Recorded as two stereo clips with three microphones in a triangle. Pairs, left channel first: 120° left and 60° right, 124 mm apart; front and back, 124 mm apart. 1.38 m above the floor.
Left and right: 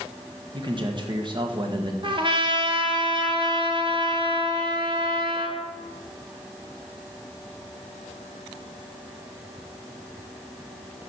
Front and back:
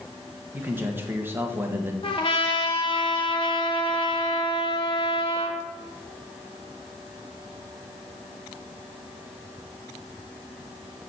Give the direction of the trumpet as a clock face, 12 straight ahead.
1 o'clock.